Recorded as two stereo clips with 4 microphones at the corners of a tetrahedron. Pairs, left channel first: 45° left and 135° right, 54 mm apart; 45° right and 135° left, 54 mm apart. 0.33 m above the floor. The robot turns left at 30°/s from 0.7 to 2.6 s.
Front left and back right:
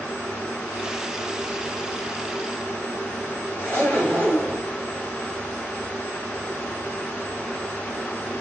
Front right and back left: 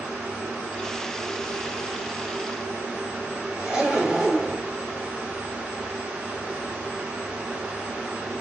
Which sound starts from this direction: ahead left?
A zipper, at 3.6 s.